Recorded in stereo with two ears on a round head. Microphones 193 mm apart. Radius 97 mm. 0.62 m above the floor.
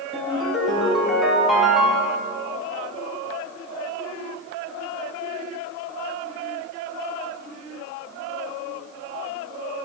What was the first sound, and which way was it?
A ringtone, centre (ahead or behind).